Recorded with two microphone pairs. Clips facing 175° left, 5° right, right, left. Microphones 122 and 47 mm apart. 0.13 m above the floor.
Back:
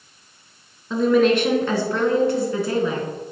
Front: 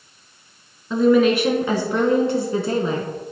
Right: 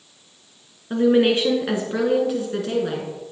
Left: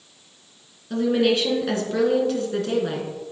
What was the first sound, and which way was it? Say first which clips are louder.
A woman speaking: front 1 dB, right 3 dB; 95° right.